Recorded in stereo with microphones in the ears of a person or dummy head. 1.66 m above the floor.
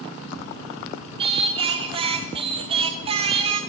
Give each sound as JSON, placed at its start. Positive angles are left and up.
{"t": 1.2, "sound": "singing", "side_deg": -30, "distance_m": 0.6}